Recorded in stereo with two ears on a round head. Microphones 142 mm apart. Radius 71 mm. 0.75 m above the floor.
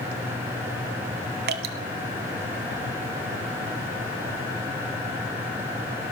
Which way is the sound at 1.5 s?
70° right (ahead or behind).